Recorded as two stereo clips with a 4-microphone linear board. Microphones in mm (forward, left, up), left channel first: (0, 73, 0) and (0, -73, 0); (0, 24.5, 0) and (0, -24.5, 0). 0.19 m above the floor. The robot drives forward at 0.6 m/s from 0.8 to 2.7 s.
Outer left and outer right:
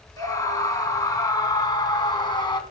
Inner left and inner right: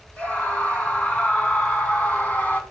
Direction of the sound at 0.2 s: 25° left (ahead or behind).